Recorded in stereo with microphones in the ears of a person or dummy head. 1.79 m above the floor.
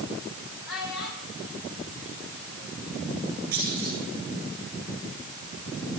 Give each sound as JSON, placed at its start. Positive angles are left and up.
{"t": 0.7, "sound": "a child speaking", "side_deg": 65, "distance_m": 5.5}
{"t": 3.5, "sound": "a clunk", "side_deg": -50, "distance_m": 9.5}